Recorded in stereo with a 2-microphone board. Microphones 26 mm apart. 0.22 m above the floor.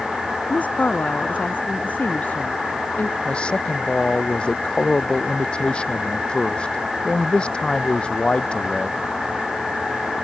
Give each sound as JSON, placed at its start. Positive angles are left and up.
{"t": 0.5, "sound": "a woman speaking", "side_deg": 70}
{"t": 3.2, "sound": "a man speaking", "side_deg": 40}